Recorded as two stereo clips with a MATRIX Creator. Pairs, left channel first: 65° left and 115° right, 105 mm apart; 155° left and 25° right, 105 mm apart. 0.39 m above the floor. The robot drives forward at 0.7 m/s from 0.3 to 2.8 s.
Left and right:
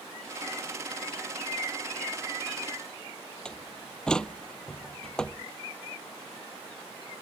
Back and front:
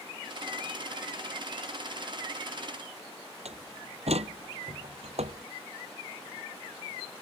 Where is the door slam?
15° right.